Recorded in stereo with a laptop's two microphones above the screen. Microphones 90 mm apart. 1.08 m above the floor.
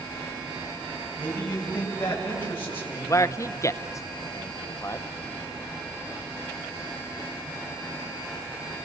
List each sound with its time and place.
1.2 s a man speaking: 15° left (ahead or behind), 7.5 m; by 3.2 s 30° left (ahead or behind), 5 m
3.1 s a man speaking: 35° left (ahead or behind), 0.6 m